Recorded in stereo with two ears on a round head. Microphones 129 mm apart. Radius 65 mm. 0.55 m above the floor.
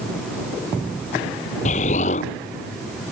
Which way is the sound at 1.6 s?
50° left (ahead or behind).